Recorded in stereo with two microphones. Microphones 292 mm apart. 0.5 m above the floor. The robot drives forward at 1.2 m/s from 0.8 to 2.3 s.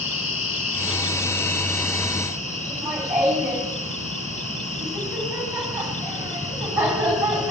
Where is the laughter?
5° right (ahead or behind), 4 m.